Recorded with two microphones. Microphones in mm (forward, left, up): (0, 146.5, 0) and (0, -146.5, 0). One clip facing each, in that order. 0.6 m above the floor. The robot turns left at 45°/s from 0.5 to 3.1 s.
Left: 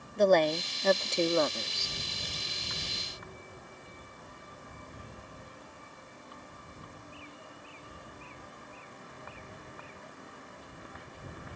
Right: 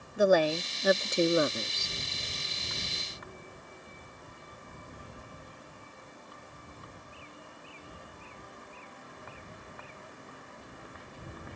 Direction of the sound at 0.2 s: 5° right (ahead or behind).